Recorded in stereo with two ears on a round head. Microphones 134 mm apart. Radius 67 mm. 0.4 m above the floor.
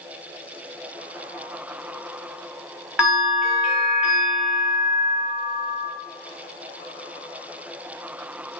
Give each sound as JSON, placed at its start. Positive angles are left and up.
{"t": 3.0, "sound": "a bell", "side_deg": -5, "distance_m": 1.4}